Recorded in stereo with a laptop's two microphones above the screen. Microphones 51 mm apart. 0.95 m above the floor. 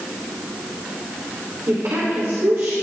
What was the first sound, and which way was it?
A woman speaking, 75° right (ahead or behind).